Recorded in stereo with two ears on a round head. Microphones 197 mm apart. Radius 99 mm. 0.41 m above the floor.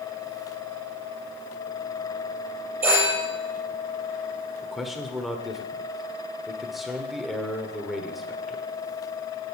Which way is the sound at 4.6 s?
Centre (ahead or behind).